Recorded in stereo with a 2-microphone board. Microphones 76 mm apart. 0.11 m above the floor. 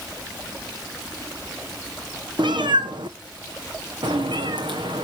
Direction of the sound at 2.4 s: 75° right (ahead or behind).